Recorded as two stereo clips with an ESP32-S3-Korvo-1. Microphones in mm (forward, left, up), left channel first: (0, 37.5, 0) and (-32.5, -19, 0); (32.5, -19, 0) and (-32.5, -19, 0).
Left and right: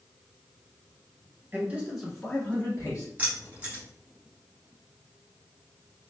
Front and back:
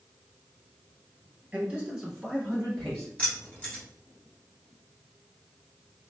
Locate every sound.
1.5 s a man speaking: 135° right, 1.3 m; by 3.1 s 90° left, 1.6 m
3.2 s keys jangling: 60° right, 1.5 m